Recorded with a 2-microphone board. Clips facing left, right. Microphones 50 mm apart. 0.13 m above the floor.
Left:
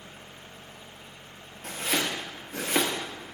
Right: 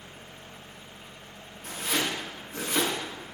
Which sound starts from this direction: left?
Chopping, at 1.6 s.